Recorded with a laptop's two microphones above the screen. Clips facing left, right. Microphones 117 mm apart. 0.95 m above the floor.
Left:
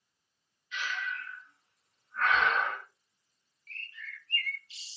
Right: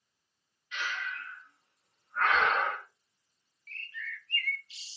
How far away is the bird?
About 0.6 m.